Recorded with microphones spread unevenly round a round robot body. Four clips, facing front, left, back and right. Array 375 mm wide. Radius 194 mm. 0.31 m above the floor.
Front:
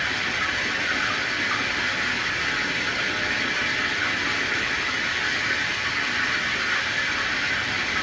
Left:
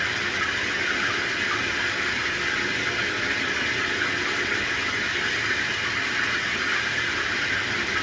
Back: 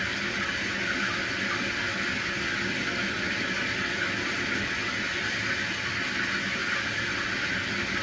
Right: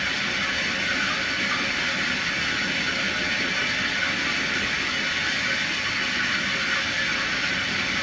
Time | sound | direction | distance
0.0 | running water | 95° left | 3.5 m